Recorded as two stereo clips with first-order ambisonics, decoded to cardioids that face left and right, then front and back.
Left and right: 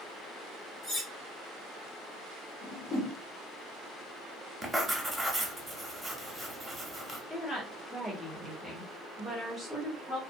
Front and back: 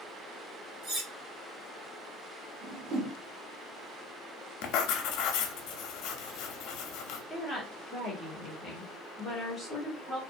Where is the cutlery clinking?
155° left, 1.6 m.